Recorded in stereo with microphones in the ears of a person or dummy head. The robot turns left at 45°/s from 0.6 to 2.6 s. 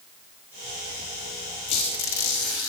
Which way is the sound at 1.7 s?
145° left.